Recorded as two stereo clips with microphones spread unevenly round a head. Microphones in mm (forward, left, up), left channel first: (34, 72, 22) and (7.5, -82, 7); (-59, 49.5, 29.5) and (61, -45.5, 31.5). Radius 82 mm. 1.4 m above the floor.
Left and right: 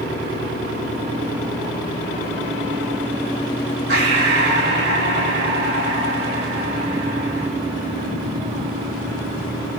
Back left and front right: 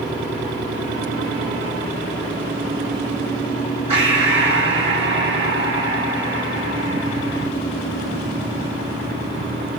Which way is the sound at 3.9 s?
95° right.